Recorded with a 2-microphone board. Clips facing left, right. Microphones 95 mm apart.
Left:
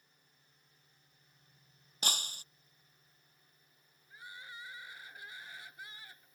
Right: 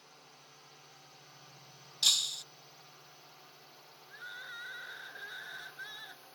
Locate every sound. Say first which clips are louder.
0.0 s a drone: right 15 dB; 85° right; by 6.4 s 75° right (ahead or behind)
2.0 s breaking glass: left 3 dB; 40° left (ahead or behind)
4.1 s crying: right 3 dB; 30° right (ahead or behind)